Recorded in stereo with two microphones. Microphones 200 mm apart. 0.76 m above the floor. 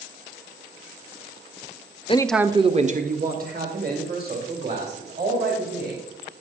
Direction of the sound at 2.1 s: 30° left (ahead or behind).